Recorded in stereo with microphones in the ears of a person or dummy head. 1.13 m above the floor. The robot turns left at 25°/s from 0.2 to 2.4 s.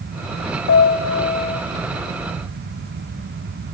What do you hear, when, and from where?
0.7 s a piano: 55° left (ahead or behind), 3.5 m; by 1.6 s 35° left (ahead or behind), 3.5 m